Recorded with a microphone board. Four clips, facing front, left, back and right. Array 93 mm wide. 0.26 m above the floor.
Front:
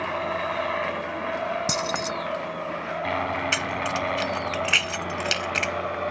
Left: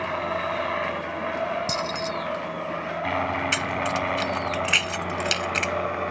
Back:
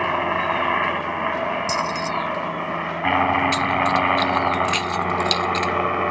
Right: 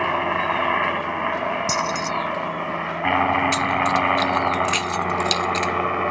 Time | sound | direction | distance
0.0 | a helicopter | 135° right | ?
1.7 | keys jangling | 10° right | ?
3.5 | keys jangling | 40° left | ?